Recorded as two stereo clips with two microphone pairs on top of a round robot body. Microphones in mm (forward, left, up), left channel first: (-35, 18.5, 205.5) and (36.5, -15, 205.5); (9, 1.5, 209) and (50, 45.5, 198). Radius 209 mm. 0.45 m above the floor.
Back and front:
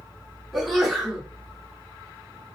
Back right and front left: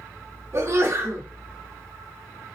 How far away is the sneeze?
About 2.5 m.